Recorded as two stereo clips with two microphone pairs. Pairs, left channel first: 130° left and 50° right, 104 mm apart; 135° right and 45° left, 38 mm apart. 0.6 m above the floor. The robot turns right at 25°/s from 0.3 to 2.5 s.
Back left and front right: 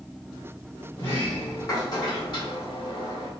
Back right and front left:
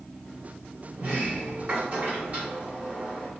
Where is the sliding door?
55° left, 1.8 m; by 3.3 s 95° left, 1.8 m.